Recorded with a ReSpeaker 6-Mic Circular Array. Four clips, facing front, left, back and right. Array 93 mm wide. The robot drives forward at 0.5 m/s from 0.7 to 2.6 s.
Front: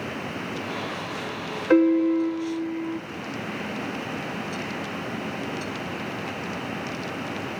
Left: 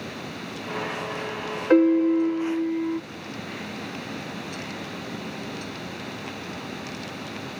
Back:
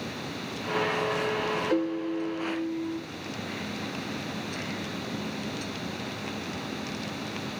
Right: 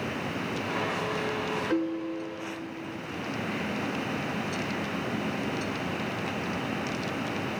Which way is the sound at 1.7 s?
40° left.